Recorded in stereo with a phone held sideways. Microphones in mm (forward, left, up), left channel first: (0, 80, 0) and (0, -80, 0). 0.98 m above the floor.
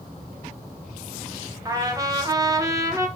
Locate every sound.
1.6 s a trumpet: 20° right (ahead or behind), 0.7 m